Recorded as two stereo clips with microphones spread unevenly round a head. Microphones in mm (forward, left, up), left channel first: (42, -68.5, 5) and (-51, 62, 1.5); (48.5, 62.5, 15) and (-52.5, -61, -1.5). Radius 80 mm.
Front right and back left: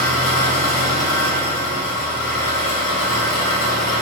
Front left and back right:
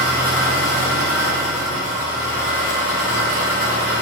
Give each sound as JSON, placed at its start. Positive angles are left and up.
{"t": 0.0, "sound": "an engine running", "azimuth_deg": -25, "distance_m": 1.9}